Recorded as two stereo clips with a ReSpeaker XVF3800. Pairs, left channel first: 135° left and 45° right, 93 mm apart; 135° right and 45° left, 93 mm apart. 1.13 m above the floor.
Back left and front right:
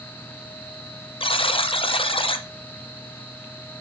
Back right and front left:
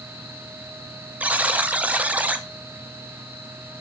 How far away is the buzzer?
About 0.5 m.